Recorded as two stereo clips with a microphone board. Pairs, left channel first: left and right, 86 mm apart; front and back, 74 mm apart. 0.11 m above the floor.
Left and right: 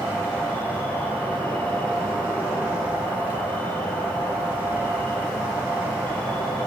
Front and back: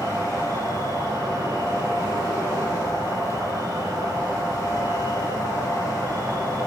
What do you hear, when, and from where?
0.0 s an insect: 160° left, 1.8 m